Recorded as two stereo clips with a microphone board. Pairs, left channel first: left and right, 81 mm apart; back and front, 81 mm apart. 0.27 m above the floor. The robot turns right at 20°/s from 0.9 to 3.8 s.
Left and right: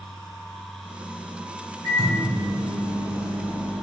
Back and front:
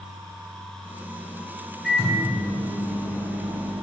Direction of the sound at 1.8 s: 85° right.